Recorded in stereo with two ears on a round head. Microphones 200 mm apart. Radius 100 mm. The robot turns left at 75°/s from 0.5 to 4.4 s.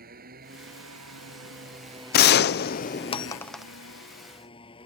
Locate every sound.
0.0 s a motorcycle: 45° right (ahead or behind); by 4.9 s 25° left (ahead or behind)
2.1 s a gunshot: 110° left; by 3.6 s 5° right